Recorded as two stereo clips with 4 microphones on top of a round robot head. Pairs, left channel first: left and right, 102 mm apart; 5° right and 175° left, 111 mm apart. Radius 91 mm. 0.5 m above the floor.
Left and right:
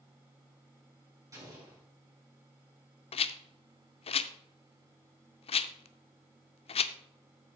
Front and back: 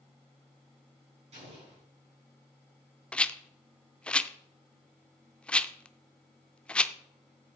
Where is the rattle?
80° left, 0.5 m.